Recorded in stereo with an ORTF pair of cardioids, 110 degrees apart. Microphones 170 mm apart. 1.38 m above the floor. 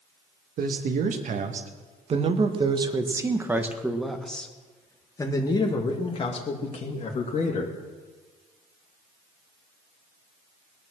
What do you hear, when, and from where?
0.6 s a man speaking: 55° right, 2 m; by 7.8 s 45° left, 2.5 m